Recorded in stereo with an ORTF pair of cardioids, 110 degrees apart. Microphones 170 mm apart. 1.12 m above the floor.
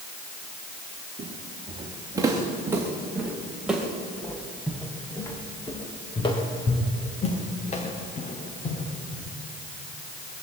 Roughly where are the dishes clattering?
No dishes clattering in this recording.